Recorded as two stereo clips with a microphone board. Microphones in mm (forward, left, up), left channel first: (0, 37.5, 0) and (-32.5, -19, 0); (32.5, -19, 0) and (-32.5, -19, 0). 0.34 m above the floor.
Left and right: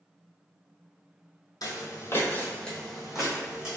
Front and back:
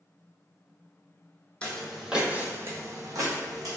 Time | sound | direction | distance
1.6 | footsteps | 70° left | 0.6 m